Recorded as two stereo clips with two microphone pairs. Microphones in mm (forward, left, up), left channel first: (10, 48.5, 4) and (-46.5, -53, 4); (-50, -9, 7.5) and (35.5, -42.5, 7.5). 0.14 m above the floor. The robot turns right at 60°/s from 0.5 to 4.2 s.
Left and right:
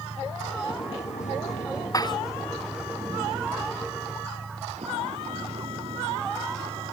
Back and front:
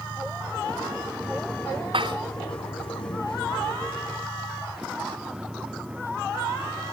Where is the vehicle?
Straight ahead; by 6.9 s 95° right.